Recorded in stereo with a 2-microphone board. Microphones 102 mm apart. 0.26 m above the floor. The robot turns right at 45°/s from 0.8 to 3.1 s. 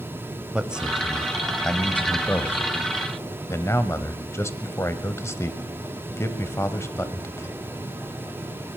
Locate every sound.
0.5 s a man speaking: 10° right (ahead or behind), 1.2 m; by 7.6 s 25° left (ahead or behind), 1.2 m